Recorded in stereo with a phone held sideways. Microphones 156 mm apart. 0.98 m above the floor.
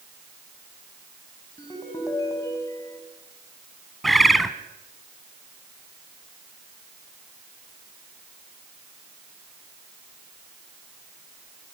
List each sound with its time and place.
1.6 s a ringtone: 20° left (ahead or behind), 5.5 m
4.0 s a bird: centre (ahead or behind), 1.2 m